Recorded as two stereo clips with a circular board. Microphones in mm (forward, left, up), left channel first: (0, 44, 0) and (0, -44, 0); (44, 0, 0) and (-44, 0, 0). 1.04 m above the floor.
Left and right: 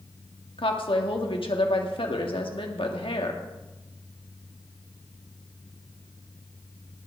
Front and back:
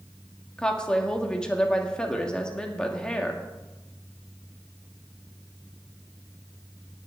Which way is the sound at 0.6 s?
80° left.